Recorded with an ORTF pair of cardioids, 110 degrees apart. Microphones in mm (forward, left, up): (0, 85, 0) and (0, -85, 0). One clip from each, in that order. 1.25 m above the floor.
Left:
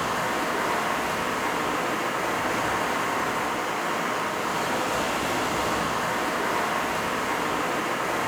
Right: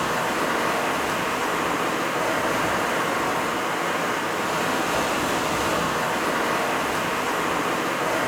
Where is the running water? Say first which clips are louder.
Right 2 dB; 20° right, 1.0 m.